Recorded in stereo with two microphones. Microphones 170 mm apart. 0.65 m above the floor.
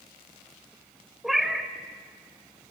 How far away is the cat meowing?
About 0.9 m.